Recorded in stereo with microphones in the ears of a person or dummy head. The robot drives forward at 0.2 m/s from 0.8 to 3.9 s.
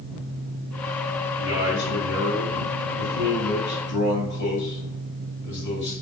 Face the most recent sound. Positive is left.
turn(degrees=55)  # may be behind; listen again after turning